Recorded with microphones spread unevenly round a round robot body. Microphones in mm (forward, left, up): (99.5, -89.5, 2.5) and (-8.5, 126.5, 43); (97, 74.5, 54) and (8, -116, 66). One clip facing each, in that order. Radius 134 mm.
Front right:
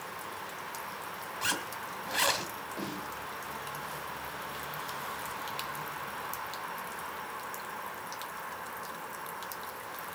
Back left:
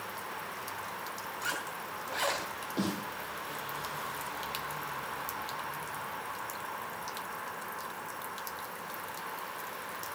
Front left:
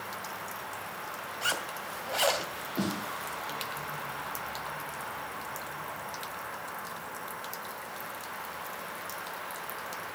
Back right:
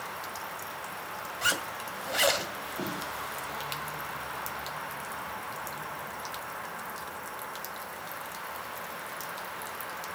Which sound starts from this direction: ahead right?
A zipper, at 1.4 s.